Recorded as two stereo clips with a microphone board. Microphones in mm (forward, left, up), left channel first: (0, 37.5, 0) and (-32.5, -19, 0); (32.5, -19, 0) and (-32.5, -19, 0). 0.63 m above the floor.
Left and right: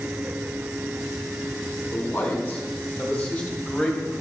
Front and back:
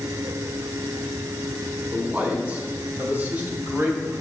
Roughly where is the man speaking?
Behind left.